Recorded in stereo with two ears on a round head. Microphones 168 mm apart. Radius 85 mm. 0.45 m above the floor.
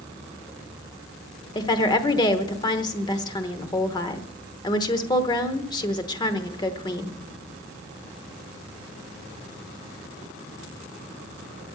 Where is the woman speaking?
20° left (ahead or behind), 0.9 m.